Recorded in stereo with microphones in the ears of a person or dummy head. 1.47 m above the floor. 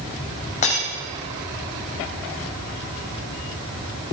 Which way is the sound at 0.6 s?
40° left (ahead or behind).